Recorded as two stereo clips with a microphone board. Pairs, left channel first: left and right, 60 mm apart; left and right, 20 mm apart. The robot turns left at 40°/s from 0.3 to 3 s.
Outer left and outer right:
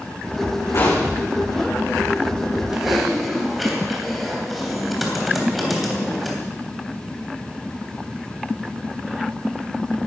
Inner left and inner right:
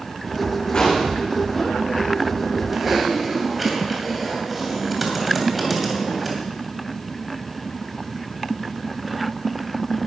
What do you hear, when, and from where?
0.7 s a gunshot: 55° left (ahead or behind), 7.5 m; by 1.1 s 70° left (ahead or behind), 7.5 m
2.7 s typing on a keyboard: 10° right (ahead or behind), 3 m; by 6.3 s centre (ahead or behind), 3 m